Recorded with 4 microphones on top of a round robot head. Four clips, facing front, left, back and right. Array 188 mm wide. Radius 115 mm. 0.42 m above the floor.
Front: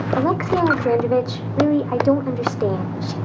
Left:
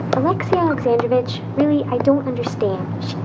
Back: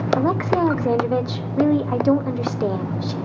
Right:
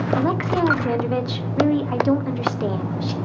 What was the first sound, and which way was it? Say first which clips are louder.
A woman speaking: left 6 dB, front 1 dB; 85° left.